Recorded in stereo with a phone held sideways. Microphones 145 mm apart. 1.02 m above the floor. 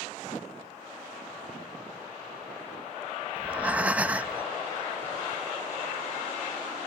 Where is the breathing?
10° right (ahead or behind).